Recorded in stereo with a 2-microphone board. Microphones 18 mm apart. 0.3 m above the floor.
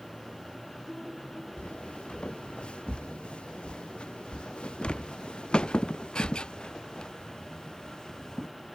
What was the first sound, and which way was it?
Footsteps, 65° left (ahead or behind).